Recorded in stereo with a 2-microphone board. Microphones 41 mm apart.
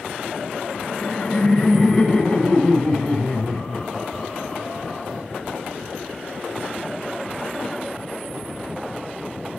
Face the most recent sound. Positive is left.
turn(degrees=-5)  # may be behind; listen again after turning